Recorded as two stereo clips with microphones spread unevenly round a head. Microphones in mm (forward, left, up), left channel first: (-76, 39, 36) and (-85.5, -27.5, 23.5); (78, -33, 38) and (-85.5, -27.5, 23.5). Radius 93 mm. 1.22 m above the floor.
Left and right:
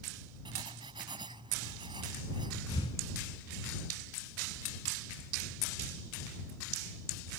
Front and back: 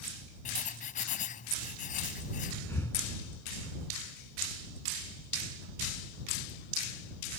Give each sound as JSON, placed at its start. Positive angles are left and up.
{"t": 0.5, "sound": "writing", "azimuth_deg": -40}
{"t": 2.7, "sound": "breathing", "azimuth_deg": 75}